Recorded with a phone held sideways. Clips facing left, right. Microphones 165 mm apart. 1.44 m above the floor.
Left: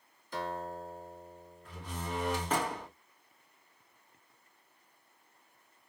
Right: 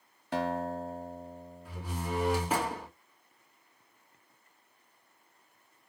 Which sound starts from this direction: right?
A guitar, at 0.3 s.